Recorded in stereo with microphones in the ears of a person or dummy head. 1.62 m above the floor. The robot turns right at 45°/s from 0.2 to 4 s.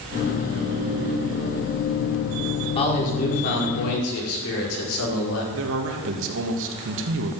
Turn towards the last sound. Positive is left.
turn(degrees=-75)  # may be behind; listen again after turning